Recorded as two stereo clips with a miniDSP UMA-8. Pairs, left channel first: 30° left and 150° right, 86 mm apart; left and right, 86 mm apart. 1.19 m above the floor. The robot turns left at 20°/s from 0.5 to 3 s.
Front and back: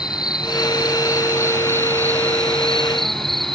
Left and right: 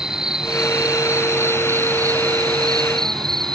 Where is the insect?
10° right; by 3.5 s 60° right.